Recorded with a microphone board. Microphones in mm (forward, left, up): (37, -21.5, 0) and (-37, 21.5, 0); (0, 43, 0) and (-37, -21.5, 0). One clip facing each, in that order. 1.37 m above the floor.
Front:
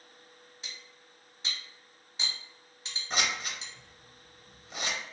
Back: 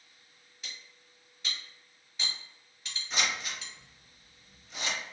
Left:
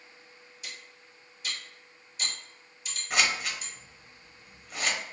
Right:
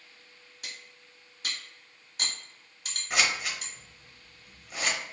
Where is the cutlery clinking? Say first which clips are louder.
Back 1 dB, even; 95° right, 1.2 m.